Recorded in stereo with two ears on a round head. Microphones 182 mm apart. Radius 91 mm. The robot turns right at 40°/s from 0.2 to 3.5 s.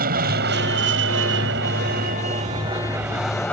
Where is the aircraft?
125° right; by 3.5 s 10° left.